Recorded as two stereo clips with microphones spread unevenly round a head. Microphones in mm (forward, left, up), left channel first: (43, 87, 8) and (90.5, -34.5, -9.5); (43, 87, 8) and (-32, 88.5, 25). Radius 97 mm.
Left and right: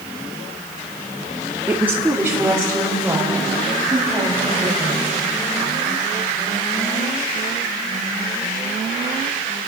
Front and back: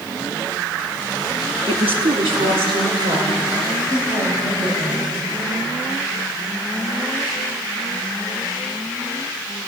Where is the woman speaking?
150° right, 1.6 m; by 5.1 s 145° right, 6.5 m.